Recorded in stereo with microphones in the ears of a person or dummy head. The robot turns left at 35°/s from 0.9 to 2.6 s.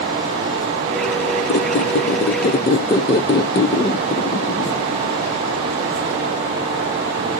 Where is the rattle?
I don't hear a rattle.